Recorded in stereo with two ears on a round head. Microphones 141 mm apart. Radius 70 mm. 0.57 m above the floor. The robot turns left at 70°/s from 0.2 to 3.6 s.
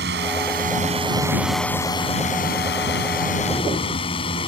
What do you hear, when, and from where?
0.0 s a drone: 85° right; by 4.5 s 35° left